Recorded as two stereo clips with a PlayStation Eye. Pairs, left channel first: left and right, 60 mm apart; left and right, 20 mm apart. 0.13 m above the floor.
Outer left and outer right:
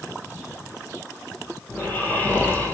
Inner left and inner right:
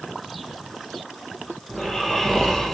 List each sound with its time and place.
1.7 s snoring: 25° left (ahead or behind), 3 m